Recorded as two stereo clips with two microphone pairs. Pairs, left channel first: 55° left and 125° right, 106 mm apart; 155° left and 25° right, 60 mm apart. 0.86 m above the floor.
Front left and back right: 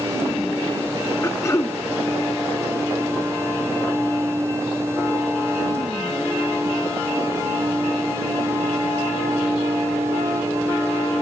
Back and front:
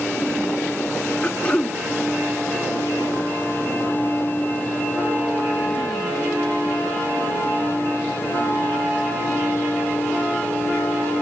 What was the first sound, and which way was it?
Throat clearing, 100° left.